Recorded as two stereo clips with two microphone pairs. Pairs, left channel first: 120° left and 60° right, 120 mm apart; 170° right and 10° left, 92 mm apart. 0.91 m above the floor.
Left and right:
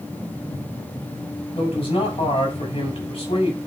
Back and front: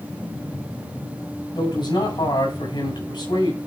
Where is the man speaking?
155° left, 6.5 m.